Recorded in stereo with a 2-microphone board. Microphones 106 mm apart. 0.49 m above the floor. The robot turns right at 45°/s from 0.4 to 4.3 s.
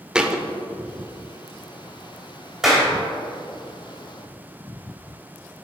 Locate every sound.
0.1 s a thud: 10° right (ahead or behind), 0.5 m; by 0.4 s 5° right (ahead or behind), 0.5 m
2.6 s a clap: 5° right (ahead or behind), 2.5 m; by 2.9 s 15° right (ahead or behind), 2.5 m